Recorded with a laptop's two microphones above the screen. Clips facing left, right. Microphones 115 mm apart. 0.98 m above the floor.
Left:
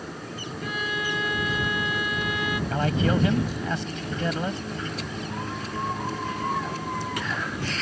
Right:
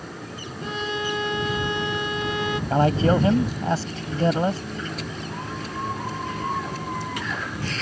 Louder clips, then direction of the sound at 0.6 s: Right 3 dB; 30° right (ahead or behind).